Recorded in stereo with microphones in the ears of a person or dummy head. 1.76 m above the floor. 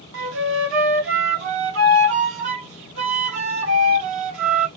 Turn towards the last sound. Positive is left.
turn(degrees=-70)  # may be behind; listen again after turning